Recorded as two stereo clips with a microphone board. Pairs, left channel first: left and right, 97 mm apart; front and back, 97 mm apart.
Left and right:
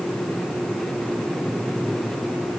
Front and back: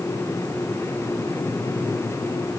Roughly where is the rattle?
No rattle in this recording.